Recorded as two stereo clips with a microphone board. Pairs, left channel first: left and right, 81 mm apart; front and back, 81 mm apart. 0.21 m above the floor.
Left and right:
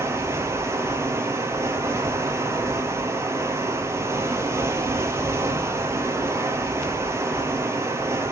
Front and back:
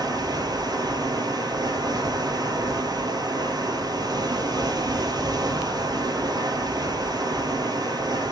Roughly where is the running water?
Behind right.